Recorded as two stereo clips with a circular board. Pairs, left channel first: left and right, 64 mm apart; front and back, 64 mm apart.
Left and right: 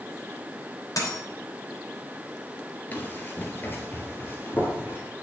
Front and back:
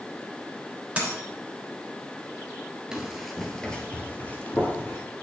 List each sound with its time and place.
1.0 s a dropped coin: 110° left, 3 m
2.9 s running footsteps: 115° left, 1.5 m; by 5.0 s 40° left, 2 m